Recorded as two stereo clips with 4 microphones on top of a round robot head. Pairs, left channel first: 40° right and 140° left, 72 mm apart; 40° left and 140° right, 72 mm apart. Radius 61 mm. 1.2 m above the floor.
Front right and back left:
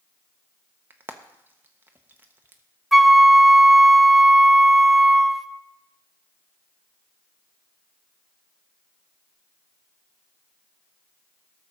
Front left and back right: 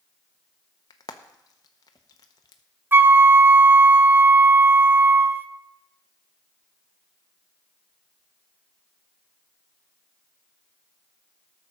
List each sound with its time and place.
0.9 s frying: 80° left, 0.6 m
2.9 s a flute: 130° right, 0.6 m